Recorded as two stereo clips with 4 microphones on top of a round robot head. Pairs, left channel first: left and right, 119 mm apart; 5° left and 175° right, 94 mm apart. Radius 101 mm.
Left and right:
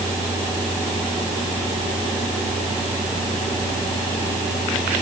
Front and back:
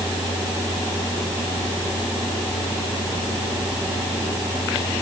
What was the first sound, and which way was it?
Only background noise.